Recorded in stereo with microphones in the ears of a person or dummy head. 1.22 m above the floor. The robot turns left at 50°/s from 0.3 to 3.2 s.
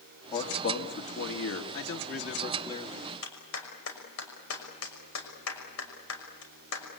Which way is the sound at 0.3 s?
160° left.